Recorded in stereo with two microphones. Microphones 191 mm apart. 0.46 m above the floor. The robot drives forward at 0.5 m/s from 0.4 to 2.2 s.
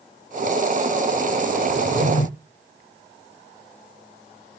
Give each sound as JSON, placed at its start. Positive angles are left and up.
{"t": 1.7, "sound": "a drawer", "side_deg": 85, "distance_m": 5.0}